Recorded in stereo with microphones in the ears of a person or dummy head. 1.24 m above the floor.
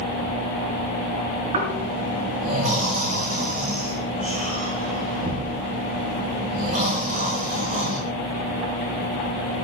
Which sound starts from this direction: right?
Snoring, at 1.5 s.